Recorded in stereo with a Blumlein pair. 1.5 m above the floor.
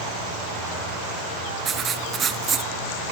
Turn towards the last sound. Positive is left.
turn(degrees=-20)